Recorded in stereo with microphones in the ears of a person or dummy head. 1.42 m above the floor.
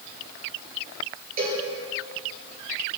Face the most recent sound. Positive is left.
turn(degrees=-45)  # may be behind; listen again after turning